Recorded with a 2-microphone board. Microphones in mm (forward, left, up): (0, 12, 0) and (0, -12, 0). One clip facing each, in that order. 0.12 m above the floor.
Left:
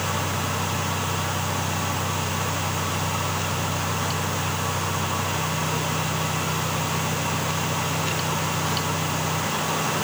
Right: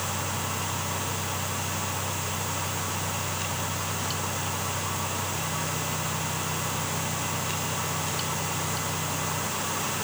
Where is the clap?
No clap in this recording.